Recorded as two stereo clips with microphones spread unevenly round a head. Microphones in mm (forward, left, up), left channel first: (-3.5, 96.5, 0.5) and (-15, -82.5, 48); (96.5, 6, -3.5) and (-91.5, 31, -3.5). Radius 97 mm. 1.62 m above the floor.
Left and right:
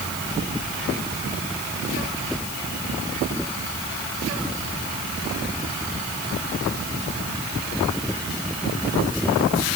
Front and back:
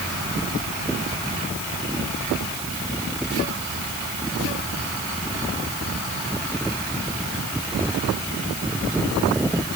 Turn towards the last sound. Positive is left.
No sound to turn to.